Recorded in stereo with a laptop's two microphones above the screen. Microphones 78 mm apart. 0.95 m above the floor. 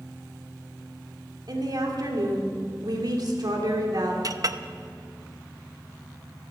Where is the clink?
50° right (ahead or behind), 0.7 m.